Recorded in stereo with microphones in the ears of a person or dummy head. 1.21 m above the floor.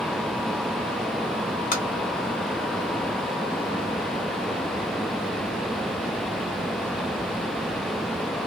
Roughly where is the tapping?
Left.